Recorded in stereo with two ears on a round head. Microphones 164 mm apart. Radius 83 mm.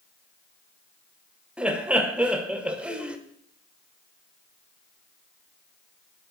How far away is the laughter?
About 1.1 m.